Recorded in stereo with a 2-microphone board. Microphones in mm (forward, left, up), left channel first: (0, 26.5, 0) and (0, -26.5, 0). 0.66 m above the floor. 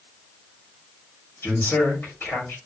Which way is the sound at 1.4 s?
45° left (ahead or behind).